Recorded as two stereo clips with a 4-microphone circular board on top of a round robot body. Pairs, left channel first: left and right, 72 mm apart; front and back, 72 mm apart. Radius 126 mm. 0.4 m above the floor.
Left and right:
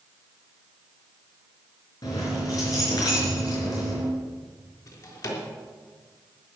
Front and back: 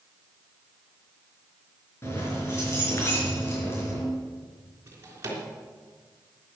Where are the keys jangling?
55° left, 4.5 m.